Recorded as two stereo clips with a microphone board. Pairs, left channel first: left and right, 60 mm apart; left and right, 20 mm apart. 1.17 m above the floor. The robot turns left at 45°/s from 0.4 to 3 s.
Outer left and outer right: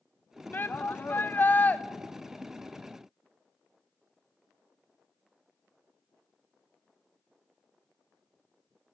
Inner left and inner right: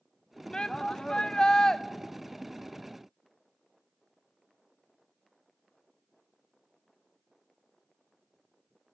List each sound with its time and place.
0.5 s a shout: 105° left, 0.5 m; by 1.8 s 45° left, 0.5 m